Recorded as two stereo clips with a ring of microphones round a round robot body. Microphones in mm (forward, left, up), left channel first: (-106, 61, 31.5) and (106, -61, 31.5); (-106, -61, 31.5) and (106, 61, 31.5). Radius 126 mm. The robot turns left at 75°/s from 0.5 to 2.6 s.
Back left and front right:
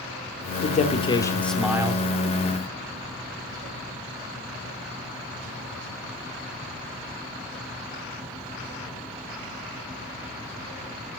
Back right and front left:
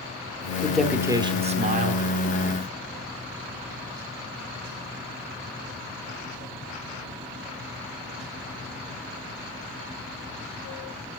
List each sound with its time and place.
0.6 s a man speaking: 130° left, 1.1 m; by 2.0 s 25° left, 1.1 m